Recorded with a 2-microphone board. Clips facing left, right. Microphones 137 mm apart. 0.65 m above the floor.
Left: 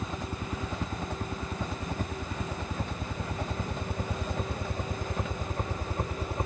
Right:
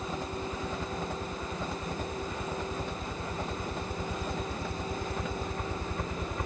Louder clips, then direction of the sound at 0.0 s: Right 1 dB; 75° left (ahead or behind).